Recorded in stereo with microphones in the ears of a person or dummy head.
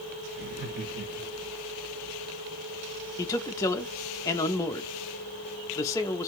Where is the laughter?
55° right (ahead or behind), 1.2 m.